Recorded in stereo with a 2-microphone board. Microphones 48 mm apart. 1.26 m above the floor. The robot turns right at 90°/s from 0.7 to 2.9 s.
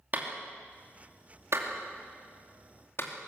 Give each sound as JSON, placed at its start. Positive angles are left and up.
{"t": 0.1, "sound": "a clap", "side_deg": -40, "distance_m": 2.5}